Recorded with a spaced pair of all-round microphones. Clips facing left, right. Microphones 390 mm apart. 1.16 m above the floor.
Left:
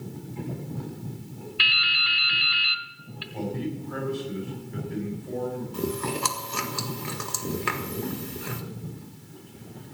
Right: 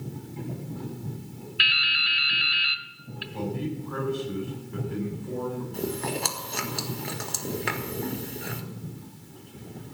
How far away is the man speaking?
About 8.5 m.